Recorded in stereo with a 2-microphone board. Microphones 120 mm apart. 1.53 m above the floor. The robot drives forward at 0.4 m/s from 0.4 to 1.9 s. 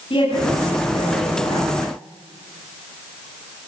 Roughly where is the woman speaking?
Left.